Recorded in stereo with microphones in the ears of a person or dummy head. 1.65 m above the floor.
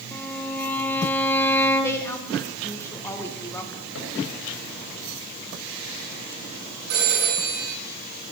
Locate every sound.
0.1 s a violin: 5° left (ahead or behind), 1.0 m
1.8 s a woman speaking: 15° left (ahead or behind), 1.7 m
4.0 s a cupboard door: 80° left, 6 m
6.9 s a phone ringing: 80° right, 9.5 m